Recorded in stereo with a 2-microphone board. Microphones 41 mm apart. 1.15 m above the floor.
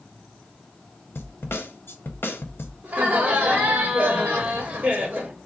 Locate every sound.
1.1 s a snare drum: 70° left (ahead or behind), 0.6 m
2.8 s laughter: 30° right (ahead or behind), 1.2 m